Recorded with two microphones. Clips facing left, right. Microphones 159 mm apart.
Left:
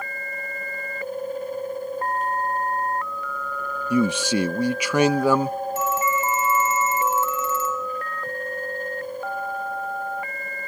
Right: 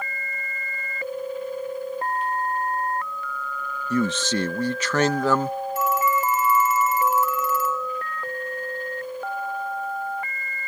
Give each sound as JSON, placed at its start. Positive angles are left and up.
{"t": 3.9, "sound": "a man speaking", "side_deg": 10}
{"t": 5.8, "sound": "a phone ringing", "side_deg": 25}